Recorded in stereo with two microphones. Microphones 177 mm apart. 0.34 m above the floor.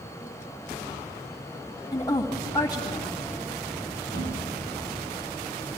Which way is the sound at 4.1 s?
90° right.